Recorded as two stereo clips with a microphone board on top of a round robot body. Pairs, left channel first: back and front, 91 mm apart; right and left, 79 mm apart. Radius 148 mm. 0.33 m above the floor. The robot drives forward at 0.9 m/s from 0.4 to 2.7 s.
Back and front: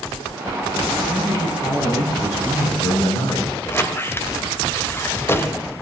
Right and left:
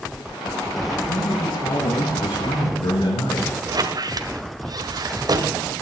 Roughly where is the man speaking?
Right.